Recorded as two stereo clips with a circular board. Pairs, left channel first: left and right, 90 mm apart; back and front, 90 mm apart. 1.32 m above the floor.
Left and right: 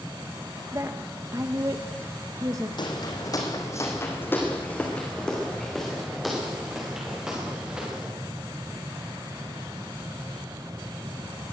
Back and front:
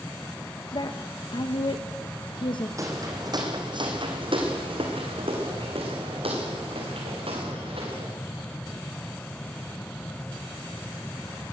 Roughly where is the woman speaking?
Behind right.